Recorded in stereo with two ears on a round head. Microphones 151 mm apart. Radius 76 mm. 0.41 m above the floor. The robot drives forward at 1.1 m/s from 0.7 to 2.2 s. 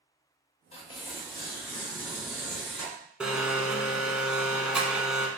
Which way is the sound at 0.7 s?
35° left (ahead or behind).